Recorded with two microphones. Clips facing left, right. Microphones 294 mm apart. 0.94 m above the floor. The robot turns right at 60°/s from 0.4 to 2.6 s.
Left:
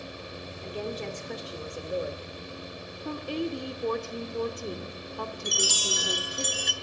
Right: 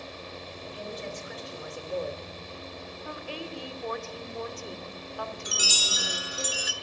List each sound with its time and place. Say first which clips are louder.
0.6 s a woman speaking: left 6 dB; 85° left, 3 m; by 2.3 s 175° right, 3 m
3.0 s a woman speaking: left 9 dB; 45° left (ahead or behind), 2.5 m
5.5 s a chime: left 5 dB; 5° right (ahead or behind), 1.9 m